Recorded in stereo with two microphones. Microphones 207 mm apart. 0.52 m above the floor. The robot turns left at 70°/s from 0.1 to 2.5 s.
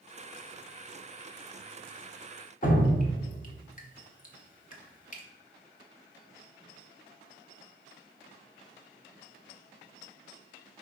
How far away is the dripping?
About 0.7 m.